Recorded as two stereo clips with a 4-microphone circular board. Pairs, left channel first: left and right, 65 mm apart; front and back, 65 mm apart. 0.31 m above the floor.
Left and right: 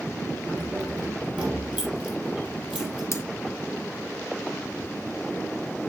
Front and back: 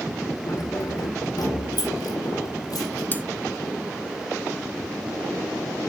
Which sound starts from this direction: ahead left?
Cutlery clinking, at 3.1 s.